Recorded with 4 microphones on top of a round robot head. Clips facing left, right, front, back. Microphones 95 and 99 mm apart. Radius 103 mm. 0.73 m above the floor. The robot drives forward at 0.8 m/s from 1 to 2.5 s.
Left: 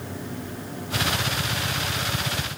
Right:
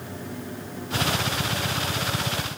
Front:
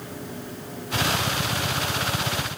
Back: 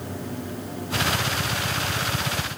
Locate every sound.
Only background noise.